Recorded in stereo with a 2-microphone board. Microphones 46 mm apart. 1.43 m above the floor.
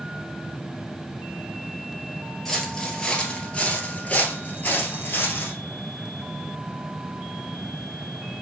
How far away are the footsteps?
About 1.7 m.